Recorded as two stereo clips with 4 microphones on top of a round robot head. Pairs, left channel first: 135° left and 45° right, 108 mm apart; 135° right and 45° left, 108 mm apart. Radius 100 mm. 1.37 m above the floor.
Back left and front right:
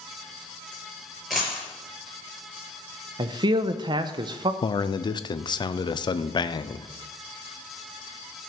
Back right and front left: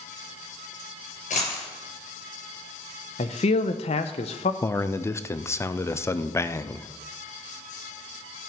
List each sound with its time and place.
1.3 s a dropped coin: 135° right, 5 m
3.2 s a man speaking: 100° right, 0.7 m
4.6 s a man speaking: 165° left, 0.6 m